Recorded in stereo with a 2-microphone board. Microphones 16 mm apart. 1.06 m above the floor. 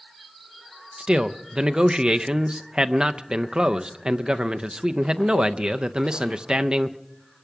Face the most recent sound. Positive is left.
turn(degrees=-65)  # may be behind; listen again after turning